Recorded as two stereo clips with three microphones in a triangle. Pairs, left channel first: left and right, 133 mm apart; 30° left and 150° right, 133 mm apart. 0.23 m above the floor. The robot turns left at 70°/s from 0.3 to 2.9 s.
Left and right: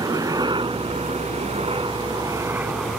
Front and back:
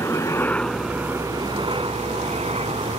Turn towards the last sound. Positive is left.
turn(degrees=-175)